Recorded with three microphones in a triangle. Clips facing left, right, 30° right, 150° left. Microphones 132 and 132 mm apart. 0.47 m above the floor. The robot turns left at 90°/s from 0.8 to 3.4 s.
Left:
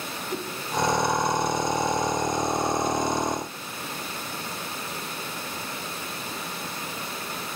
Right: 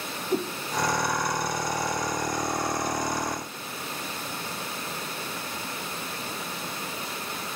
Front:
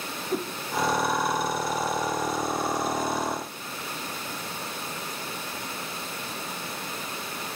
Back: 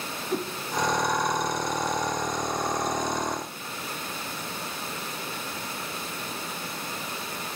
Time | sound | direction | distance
0.3 | a whoosh | 115° right | 0.9 m